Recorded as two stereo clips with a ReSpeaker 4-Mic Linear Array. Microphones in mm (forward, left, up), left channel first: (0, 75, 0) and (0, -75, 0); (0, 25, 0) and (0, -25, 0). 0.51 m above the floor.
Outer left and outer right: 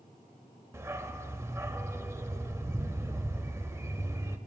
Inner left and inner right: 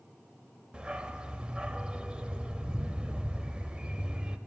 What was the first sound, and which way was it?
A dog barking, 20° right (ahead or behind).